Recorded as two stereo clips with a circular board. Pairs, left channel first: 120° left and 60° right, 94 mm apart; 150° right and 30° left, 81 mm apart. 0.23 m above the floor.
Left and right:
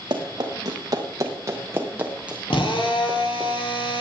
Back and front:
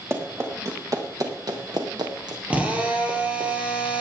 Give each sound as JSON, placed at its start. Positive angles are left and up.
{"t": 0.1, "sound": "running footsteps", "azimuth_deg": -25, "distance_m": 3.5}
{"t": 2.5, "sound": "a drill", "azimuth_deg": 100, "distance_m": 3.0}